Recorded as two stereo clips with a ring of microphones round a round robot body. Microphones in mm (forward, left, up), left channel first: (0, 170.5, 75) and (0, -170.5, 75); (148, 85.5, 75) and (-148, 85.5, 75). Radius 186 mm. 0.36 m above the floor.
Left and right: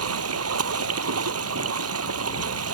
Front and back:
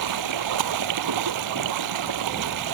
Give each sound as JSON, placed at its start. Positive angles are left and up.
{"t": 0.0, "sound": "running water", "azimuth_deg": -140}